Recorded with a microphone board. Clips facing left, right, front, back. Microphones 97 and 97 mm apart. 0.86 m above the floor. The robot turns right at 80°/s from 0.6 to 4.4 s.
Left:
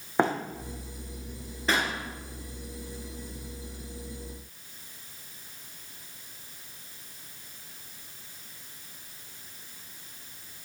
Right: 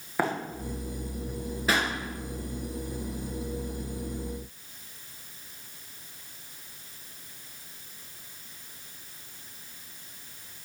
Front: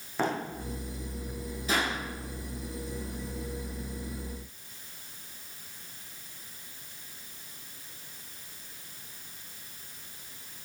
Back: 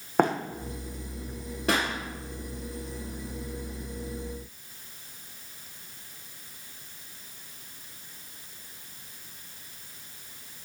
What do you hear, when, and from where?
0.2 s running footsteps: 155° left, 1.8 m
1.7 s a pop: 175° right, 2.5 m; by 1.9 s 155° right, 2.5 m